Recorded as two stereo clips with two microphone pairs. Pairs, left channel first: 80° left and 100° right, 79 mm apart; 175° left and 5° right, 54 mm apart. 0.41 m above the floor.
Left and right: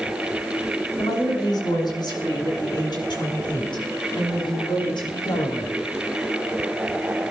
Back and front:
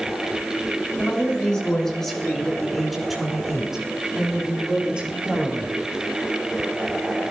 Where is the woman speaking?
110° left, 6 m; by 5.7 s 65° left, 7.5 m.